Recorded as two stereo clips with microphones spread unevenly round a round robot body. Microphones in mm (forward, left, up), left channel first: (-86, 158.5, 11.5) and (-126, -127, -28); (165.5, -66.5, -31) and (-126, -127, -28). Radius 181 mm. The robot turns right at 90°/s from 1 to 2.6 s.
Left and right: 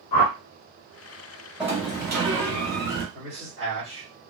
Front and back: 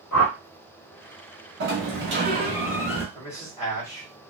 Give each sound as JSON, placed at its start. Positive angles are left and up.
{"t": 0.1, "sound": "a whoosh", "azimuth_deg": 65, "distance_m": 0.6}
{"t": 1.6, "sound": "a sliding door", "azimuth_deg": 180, "distance_m": 1.3}
{"t": 3.1, "sound": "a man speaking", "azimuth_deg": -25, "distance_m": 1.6}